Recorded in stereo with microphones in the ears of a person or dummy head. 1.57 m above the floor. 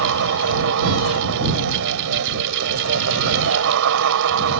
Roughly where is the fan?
Right.